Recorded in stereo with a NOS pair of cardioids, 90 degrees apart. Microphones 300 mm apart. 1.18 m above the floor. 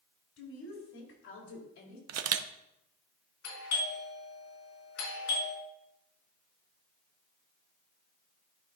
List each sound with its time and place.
0.4 s a woman speaking: 60° left, 3.5 m; by 2.0 s 80° left, 3 m
2.1 s a camera shutter: 60° right, 0.7 m
3.4 s a doorbell: 65° left, 4.5 m